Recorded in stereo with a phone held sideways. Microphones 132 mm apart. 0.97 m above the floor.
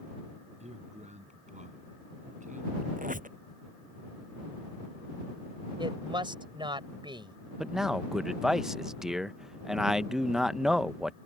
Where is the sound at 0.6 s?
55° right (ahead or behind); by 2.9 s 70° right (ahead or behind).